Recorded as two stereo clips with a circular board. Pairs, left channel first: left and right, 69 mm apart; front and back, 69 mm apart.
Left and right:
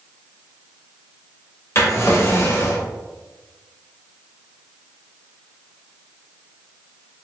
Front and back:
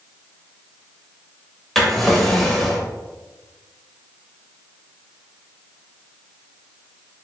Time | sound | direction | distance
1.8 | a drawer | 85° left | 0.8 m